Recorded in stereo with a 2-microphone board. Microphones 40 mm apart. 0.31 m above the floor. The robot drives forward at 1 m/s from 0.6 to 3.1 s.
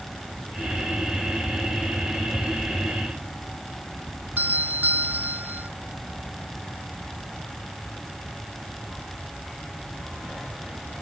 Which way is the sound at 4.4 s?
50° right (ahead or behind).